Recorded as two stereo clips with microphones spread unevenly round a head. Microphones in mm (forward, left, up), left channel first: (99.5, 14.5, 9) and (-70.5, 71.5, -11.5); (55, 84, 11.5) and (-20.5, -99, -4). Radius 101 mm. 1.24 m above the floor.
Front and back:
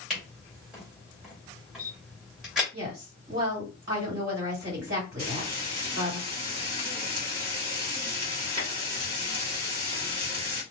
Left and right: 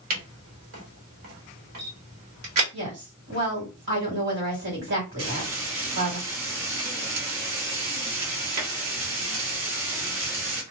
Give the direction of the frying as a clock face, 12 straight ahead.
4 o'clock.